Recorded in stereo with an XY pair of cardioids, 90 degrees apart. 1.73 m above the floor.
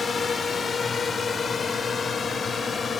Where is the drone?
40° left; by 3.0 s 45° left.